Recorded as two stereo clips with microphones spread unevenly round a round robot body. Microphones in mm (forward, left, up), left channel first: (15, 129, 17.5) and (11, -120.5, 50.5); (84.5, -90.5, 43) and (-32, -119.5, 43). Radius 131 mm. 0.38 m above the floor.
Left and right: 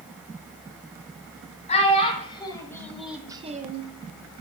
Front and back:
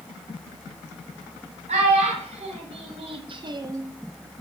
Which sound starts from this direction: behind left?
A child speaking, at 1.7 s.